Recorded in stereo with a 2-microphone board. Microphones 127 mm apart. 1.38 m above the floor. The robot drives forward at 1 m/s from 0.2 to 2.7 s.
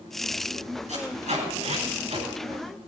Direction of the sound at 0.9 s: 70° right (ahead or behind).